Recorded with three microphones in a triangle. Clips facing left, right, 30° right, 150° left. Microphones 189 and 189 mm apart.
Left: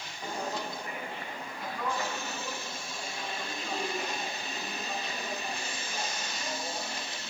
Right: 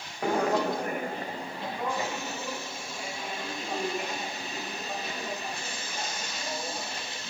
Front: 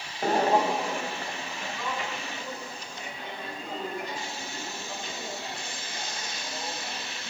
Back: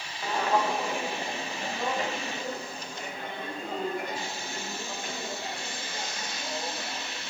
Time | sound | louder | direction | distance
0.2 | footsteps | right 10 dB, front 4 dB | 70° right | 1.1 m